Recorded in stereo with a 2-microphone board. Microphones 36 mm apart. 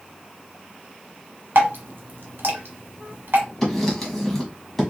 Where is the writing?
5° left (ahead or behind), 1.1 m.